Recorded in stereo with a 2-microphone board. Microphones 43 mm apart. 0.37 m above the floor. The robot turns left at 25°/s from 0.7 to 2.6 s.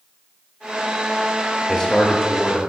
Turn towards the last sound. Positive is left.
turn(degrees=10)  # may be behind; listen again after turning